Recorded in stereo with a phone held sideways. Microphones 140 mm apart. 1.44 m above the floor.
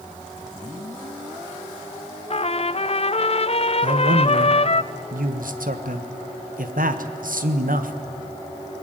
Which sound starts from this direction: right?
A man speaking, at 3.8 s.